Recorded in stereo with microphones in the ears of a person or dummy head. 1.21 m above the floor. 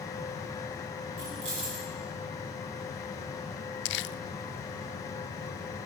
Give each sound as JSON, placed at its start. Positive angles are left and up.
{"t": 1.2, "sound": "keys jangling", "side_deg": -40, "distance_m": 10.0}
{"t": 3.9, "sound": "crumpling", "side_deg": 55, "distance_m": 0.6}